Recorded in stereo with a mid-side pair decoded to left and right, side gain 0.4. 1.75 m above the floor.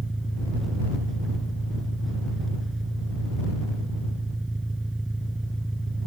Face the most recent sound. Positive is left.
turn(degrees=-15)